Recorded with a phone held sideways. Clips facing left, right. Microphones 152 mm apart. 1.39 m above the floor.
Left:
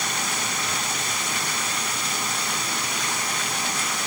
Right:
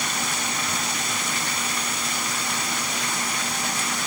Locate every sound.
Only background noise.